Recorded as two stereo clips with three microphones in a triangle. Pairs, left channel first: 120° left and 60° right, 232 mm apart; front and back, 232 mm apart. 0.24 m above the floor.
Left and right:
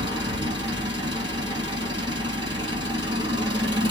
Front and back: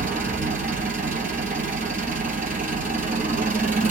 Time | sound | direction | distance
0.0 | an engine running | 130° right | 2 m